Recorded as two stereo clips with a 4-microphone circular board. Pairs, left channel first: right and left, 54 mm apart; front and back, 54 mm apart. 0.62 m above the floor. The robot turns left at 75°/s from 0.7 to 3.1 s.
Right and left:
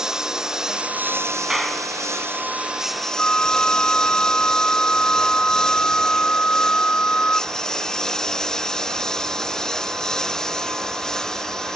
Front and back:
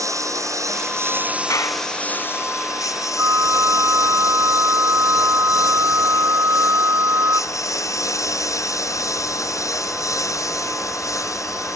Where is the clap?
5° left; by 1.9 s 20° right.